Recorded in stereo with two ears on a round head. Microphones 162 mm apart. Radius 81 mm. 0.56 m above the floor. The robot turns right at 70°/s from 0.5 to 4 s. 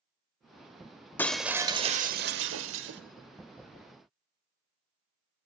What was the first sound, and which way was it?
Breaking glass, 170° left.